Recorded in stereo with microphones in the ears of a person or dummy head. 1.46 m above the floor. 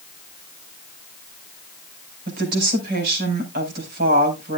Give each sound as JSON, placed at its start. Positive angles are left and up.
{"t": 2.3, "sound": "a woman speaking", "side_deg": -55, "distance_m": 5.5}